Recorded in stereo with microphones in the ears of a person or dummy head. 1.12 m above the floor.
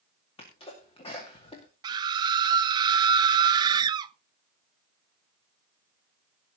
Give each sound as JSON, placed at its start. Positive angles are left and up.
{"t": 0.4, "sound": "a sneeze", "side_deg": 25, "distance_m": 2.5}
{"t": 1.8, "sound": "a scream", "side_deg": -20, "distance_m": 0.9}